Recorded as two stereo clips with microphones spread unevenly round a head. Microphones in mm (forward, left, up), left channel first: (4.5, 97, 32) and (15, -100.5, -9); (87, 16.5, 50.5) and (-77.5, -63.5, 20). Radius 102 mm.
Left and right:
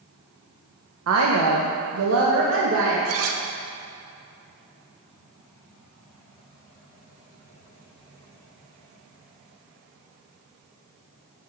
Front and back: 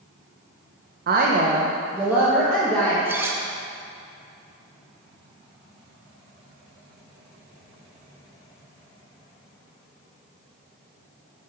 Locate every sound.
1.1 s a woman speaking: 115° right, 0.7 m; by 3.0 s 55° right, 1.4 m
3.0 s cutlery clinking: 70° right, 0.7 m